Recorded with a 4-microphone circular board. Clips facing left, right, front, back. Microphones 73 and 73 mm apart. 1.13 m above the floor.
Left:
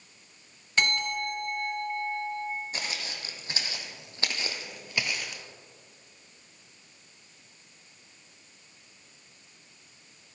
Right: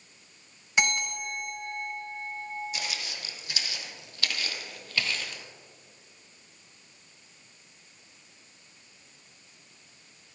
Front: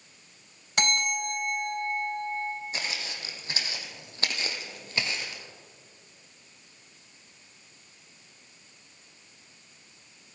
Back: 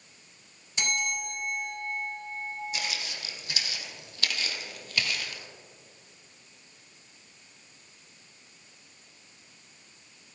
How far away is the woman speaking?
No woman speaking in this recording.